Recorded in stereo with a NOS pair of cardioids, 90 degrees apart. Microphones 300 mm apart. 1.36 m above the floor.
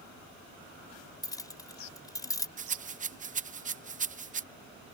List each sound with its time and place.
1.2 s keys jangling: 10° left
2.6 s a rattle: 25° right